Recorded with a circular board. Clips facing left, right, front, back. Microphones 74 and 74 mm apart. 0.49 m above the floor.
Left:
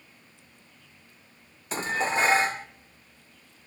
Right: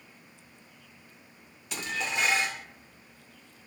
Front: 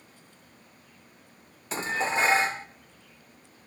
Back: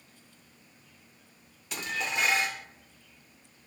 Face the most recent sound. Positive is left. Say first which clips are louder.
# left 6 dB, front 5 dB
turn(degrees=45)